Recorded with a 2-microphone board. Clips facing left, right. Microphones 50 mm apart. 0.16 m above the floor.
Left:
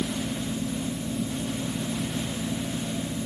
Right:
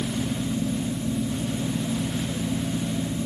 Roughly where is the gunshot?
I don't hear a gunshot.